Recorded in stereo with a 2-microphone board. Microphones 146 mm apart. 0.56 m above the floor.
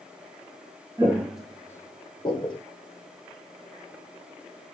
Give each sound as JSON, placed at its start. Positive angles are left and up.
{"t": 1.0, "sound": "footsteps", "side_deg": -15, "distance_m": 0.7}